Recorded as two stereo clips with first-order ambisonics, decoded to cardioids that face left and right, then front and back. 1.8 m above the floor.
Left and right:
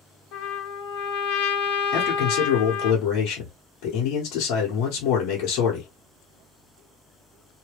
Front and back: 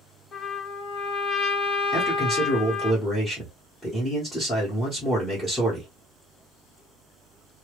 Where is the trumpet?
70° left, 1.2 m.